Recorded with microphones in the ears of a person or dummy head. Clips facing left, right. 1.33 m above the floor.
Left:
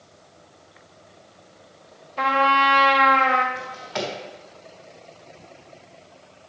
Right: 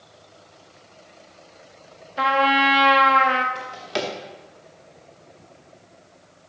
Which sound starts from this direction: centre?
A trumpet, at 2.2 s.